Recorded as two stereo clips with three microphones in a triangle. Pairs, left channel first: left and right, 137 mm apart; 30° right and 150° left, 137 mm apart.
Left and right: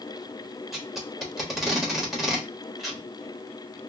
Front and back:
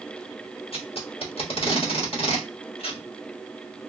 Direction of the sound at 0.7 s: Straight ahead.